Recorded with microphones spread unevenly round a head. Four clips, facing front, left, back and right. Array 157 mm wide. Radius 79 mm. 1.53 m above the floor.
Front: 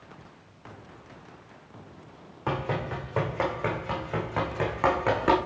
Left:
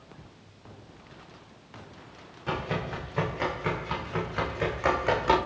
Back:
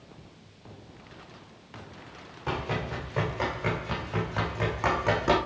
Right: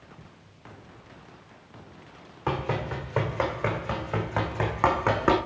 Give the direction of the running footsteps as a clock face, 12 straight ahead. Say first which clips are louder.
Right 3 dB, front 2 dB; 2 o'clock.